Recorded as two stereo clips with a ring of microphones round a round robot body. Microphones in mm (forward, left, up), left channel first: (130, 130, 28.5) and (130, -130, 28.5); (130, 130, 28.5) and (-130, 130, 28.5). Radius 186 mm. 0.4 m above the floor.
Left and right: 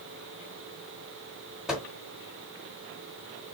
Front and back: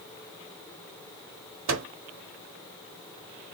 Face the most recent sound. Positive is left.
turn(degrees=-175)